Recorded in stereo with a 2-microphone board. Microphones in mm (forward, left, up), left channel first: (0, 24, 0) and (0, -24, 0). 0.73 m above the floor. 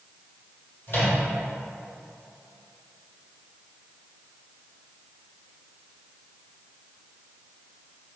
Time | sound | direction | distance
0.9 | a microwave | 45° left (ahead or behind) | 1.7 m